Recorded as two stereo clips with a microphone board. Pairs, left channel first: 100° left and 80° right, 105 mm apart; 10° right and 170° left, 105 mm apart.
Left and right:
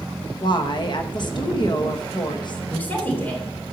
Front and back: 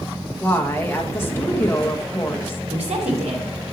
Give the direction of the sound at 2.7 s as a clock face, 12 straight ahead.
6 o'clock.